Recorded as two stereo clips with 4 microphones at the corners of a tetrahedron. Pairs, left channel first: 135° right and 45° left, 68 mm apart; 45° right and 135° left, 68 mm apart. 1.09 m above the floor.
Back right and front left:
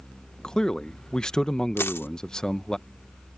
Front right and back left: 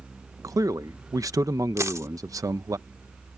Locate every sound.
0.4 s a man speaking: 150° left
1.8 s a dropped coin: 175° left